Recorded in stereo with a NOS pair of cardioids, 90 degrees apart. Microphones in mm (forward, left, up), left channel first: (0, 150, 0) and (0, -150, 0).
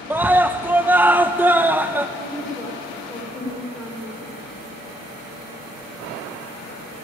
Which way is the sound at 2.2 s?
Straight ahead.